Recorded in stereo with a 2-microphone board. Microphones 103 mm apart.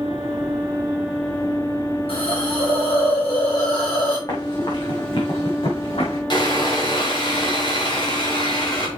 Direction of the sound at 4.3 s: 45° left (ahead or behind).